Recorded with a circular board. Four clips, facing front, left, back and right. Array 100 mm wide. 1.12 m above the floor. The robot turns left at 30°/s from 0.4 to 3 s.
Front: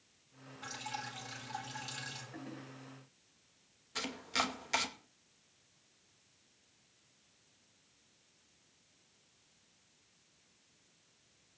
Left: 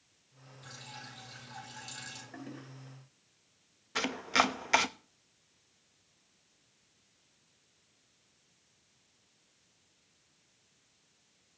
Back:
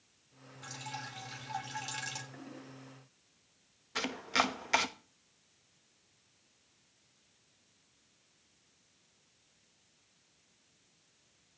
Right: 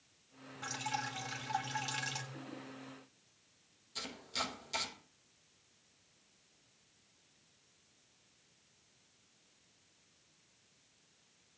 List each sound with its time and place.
0.6 s dripping: 80° right, 3.5 m; by 2.2 s 125° right, 3.5 m
2.3 s a toilet flushing: 80° left, 3 m; by 2.7 s 70° left, 3 m
4.0 s chopping: 110° left, 1.0 m